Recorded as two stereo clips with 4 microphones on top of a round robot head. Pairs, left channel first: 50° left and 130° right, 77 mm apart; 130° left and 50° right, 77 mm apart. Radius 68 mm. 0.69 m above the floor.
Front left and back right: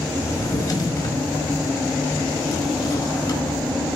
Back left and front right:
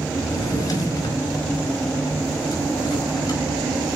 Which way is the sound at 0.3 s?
90° left.